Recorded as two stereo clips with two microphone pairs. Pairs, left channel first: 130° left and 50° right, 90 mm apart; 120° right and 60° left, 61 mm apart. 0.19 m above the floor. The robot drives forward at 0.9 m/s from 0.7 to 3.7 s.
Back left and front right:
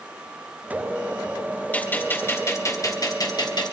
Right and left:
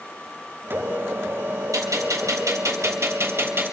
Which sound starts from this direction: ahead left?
A gunshot, at 1.7 s.